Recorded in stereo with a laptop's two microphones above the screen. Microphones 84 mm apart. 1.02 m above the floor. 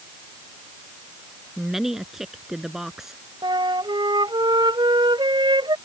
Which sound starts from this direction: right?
A flute, at 3.4 s.